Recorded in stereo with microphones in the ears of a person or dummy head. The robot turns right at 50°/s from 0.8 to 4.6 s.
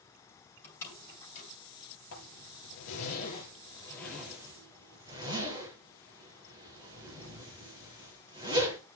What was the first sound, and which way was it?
A door slam, 15° left (ahead or behind).